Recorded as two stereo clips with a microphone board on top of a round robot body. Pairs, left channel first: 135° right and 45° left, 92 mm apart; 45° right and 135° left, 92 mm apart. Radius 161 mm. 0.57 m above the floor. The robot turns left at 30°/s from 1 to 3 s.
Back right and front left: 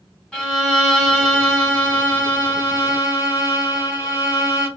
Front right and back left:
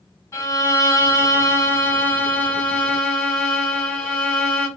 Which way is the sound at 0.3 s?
50° right.